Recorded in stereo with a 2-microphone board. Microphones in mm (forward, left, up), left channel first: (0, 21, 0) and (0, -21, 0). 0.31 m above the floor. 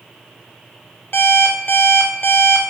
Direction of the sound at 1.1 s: 55° left (ahead or behind).